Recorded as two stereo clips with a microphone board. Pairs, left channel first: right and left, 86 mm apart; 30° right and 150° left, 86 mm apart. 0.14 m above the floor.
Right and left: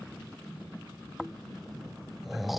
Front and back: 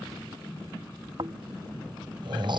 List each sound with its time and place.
1.2 s snoring: straight behind